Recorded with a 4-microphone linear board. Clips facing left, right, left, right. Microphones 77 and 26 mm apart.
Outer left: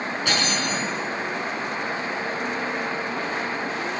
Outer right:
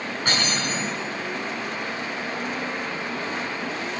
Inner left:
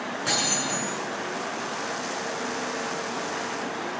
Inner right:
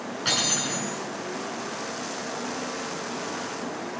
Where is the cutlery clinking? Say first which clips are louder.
Even, inner right 1 dB; 45° right (ahead or behind), 7 m.